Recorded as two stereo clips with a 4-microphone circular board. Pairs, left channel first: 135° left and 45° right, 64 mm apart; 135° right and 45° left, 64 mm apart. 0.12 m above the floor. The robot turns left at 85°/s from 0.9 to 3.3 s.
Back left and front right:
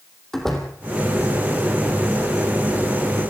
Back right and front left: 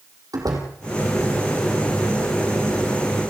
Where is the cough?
No cough in this recording.